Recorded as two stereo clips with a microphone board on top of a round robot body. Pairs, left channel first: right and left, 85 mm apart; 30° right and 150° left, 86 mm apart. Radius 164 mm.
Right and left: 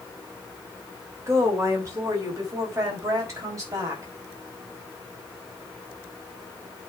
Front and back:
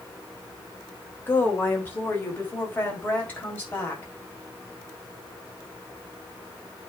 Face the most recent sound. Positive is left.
turn(degrees=40)